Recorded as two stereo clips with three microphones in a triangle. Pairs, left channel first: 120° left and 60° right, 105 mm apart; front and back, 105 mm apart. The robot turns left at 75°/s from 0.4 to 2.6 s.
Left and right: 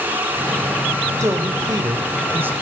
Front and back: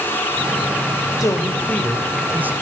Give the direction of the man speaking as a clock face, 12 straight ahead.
1 o'clock.